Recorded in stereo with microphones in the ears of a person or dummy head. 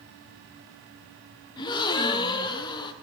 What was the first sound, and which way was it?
A gasp, 25° left (ahead or behind).